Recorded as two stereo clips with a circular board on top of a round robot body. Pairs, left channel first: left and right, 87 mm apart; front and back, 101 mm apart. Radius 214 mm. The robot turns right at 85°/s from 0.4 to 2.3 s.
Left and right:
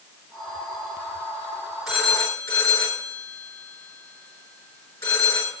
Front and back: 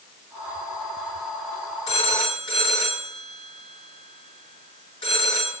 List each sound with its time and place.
1.9 s a phone ringing: 5° right, 6.5 m; by 5.5 s 30° left, 6.5 m